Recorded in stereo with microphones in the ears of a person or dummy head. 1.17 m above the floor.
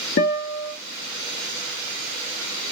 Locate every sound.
0.2 s a guitar: 45° left (ahead or behind), 0.7 m